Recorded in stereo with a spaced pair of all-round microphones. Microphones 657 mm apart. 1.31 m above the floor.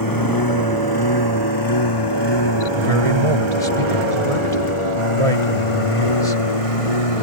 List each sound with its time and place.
0.0 s a lawn mower: 30° left (ahead or behind); by 7.2 s 55° left (ahead or behind)
2.8 s a man speaking: 55° right (ahead or behind)